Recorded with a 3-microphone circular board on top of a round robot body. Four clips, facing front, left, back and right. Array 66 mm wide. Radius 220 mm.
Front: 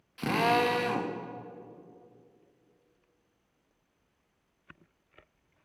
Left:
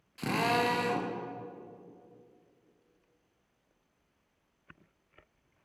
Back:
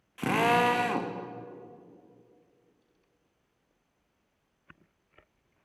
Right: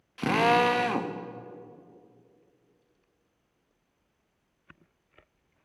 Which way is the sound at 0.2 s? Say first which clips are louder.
Right 7 dB, back 2 dB; 110° right.